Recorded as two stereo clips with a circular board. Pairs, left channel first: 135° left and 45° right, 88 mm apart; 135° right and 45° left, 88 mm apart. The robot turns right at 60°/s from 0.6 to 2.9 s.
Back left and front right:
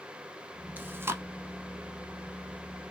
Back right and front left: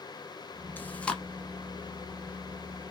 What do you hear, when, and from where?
0.8 s chewing: 90° right, 0.7 m; by 1.2 s 65° right, 0.7 m